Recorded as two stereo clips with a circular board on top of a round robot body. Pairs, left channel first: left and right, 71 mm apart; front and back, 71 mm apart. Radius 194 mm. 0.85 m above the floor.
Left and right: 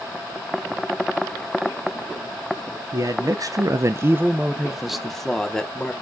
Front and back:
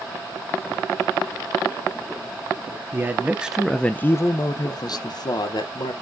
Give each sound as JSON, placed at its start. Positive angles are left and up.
{"t": 2.9, "sound": "a man speaking", "azimuth_deg": -120, "distance_m": 0.8}